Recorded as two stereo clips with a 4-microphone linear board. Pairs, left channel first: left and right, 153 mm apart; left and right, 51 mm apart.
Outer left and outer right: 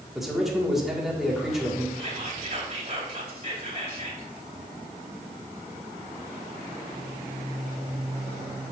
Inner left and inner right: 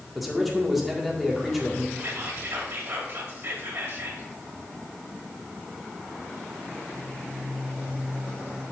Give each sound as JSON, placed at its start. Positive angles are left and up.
{"t": 0.1, "sound": "a man speaking", "side_deg": 0, "distance_m": 1.8}
{"t": 1.9, "sound": "whispering", "side_deg": -40, "distance_m": 2.5}